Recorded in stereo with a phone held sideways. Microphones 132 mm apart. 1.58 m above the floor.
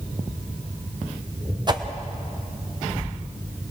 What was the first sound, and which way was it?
A whoosh, 30° right (ahead or behind).